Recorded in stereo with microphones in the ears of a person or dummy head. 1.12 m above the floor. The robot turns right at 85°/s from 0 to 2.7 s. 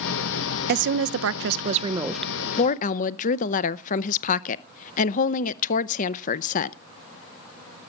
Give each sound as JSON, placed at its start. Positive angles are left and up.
{"t": 0.7, "sound": "a woman speaking", "azimuth_deg": -120, "distance_m": 0.6}